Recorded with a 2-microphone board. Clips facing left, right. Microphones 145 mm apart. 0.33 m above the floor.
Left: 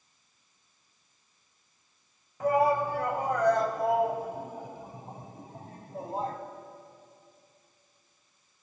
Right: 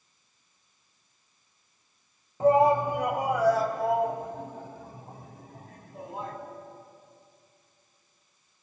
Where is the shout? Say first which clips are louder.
Right 4 dB; 30° right (ahead or behind), 1.7 m; by 6.4 s 35° left (ahead or behind), 2 m.